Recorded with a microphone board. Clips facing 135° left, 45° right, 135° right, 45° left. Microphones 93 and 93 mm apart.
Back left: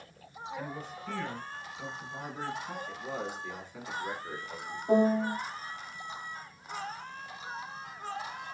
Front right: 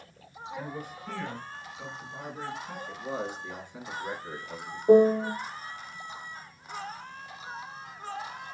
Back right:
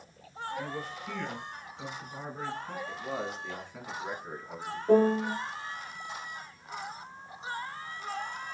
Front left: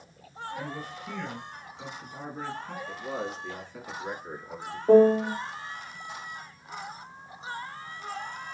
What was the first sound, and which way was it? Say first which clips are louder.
A man speaking: front right 2 dB, even; 10° left.